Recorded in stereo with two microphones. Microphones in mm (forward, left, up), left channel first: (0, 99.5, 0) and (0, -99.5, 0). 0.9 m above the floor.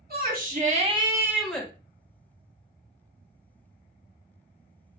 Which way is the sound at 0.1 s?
55° right (ahead or behind).